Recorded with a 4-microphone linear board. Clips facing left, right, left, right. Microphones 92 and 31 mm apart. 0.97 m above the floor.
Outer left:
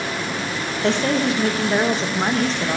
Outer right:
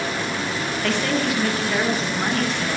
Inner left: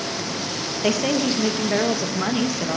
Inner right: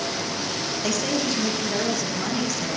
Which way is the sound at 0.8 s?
30° left (ahead or behind).